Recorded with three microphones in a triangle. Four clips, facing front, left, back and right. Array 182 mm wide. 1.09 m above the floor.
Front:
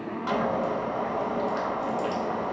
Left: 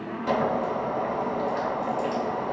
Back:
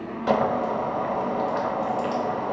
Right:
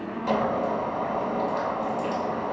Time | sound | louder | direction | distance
0.3 | boiling | even, back 4 dB | straight behind | 3 m